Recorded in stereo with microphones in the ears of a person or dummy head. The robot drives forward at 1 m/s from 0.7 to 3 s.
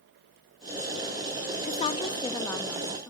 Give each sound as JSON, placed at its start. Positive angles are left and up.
{"t": 1.6, "sound": "a woman speaking", "side_deg": 45, "distance_m": 0.6}